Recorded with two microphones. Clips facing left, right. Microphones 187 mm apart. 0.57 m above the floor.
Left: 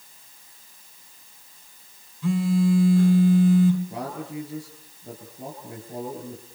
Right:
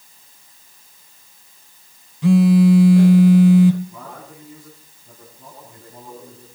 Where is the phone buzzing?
85° right, 1.0 m.